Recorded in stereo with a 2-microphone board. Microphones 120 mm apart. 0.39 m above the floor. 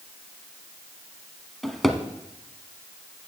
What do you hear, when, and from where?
1.6 s a drawer: centre (ahead or behind), 0.8 m